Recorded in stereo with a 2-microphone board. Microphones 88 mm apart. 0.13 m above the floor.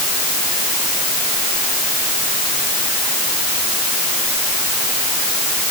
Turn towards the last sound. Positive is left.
No sound to turn to.